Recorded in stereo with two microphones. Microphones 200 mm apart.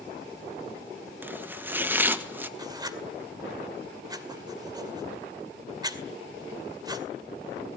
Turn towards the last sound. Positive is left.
turn(degrees=-20)  # may be behind; listen again after turning